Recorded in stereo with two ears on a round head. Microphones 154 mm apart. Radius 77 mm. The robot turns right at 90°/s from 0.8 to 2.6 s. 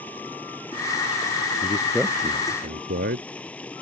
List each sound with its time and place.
0.0 s running water: 10° left; by 3.8 s 170° left
1.6 s a man speaking: 150° left; by 3.3 s 125° right